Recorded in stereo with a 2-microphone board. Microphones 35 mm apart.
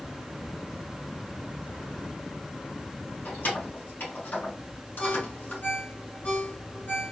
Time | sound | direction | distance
3.2 | keys jangling | 55° left (ahead or behind) | 2.5 m
5.0 | a ringtone | 60° left (ahead or behind) | 2.5 m